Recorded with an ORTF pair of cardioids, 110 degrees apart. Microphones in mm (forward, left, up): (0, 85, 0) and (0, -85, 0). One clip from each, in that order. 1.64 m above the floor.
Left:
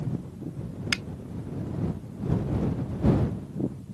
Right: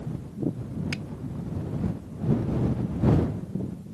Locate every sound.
0.9 s a finger snap: 60° left